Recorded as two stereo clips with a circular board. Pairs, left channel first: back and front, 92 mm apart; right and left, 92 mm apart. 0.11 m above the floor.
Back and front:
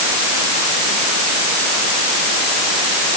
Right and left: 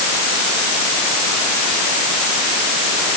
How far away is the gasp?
No gasp in this recording.